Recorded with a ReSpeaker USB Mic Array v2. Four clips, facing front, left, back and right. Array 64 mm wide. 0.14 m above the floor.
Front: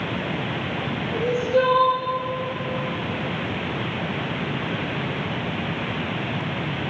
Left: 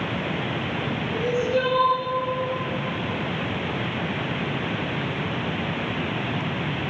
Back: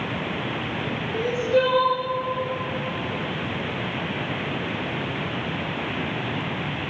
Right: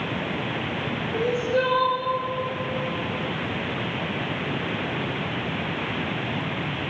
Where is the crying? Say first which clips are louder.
Even, front 1 dB; 160° left, 3.5 m.